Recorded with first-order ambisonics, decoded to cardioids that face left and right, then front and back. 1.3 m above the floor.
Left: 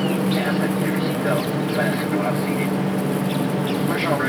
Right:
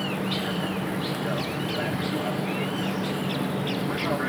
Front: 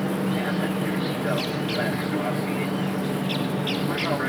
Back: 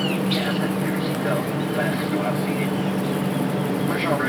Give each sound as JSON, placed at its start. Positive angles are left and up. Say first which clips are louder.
{"t": 0.0, "sound": "an aircraft", "louder": "left 6 dB, back 3 dB", "azimuth_deg": 100}